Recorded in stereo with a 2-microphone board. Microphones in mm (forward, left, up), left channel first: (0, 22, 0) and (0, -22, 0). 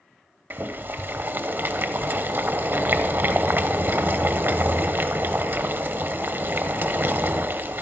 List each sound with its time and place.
0.5 s boiling: 50° right (ahead or behind), 0.9 m